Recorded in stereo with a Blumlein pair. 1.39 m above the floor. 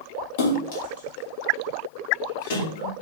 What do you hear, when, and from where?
0.4 s a splash: 55° left, 1.5 m